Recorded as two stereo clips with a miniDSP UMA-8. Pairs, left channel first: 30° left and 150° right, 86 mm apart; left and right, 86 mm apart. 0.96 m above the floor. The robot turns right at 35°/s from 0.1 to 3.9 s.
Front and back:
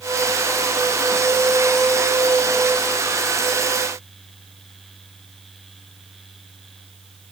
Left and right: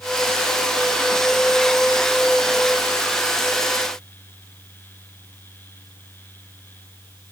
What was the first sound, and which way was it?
Only background noise.